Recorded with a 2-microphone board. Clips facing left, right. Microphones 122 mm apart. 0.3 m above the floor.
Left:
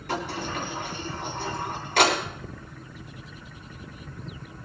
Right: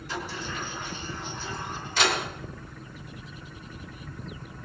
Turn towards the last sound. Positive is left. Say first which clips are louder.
# left 5 dB
turn(degrees=65)  # may be behind; listen again after turning